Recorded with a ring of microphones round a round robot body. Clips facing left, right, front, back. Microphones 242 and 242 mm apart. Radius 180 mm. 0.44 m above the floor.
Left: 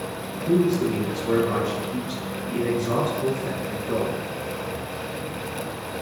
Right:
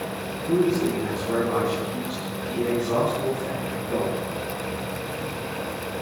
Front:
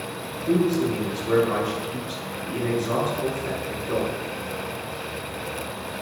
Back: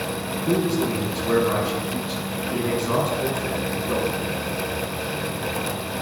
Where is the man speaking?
145° left, 7.5 m.